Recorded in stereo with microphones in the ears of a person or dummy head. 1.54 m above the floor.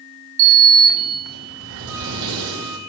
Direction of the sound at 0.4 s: 65° right (ahead or behind).